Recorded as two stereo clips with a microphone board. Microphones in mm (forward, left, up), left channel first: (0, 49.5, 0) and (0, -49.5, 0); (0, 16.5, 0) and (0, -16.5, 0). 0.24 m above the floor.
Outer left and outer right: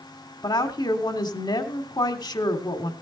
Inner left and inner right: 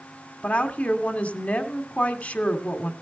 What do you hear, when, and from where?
0.4 s a woman speaking: 45° left (ahead or behind), 2 m